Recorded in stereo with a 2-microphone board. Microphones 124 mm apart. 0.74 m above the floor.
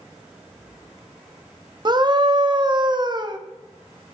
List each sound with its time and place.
1.9 s a scream: 35° right (ahead or behind), 0.9 m